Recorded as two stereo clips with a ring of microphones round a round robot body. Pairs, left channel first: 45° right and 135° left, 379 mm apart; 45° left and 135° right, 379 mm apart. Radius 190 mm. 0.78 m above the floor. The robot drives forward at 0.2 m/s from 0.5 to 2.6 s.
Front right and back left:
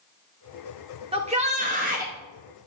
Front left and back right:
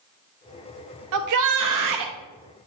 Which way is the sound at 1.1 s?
155° right.